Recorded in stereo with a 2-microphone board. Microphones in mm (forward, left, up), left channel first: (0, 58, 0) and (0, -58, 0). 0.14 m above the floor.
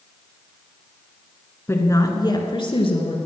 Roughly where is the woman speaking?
Left.